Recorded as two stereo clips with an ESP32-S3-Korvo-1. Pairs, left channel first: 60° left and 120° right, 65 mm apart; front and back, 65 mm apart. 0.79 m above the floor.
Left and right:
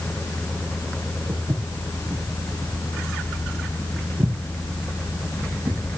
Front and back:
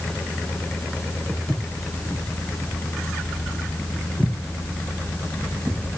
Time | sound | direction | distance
1.3 | footsteps | 80° right | 5 m